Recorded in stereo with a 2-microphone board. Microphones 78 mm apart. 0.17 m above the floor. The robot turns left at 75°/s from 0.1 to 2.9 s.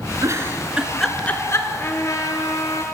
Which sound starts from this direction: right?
A giggle, at 0.2 s.